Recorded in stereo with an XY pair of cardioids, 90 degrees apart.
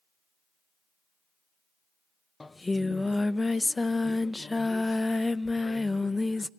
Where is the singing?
20° left, 0.6 m.